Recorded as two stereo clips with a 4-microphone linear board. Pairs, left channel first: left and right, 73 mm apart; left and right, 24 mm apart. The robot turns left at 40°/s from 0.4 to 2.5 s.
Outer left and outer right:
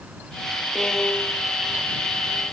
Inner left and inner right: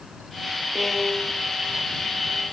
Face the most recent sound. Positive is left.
turn(degrees=70)  # may be behind; listen again after turning